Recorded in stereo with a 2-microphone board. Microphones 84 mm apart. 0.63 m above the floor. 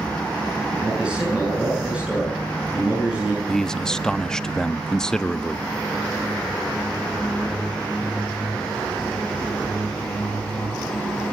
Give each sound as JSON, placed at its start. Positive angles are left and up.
{"t": 0.8, "sound": "a man speaking", "side_deg": -15, "distance_m": 8.0}
{"t": 3.5, "sound": "a man speaking", "side_deg": 5, "distance_m": 0.5}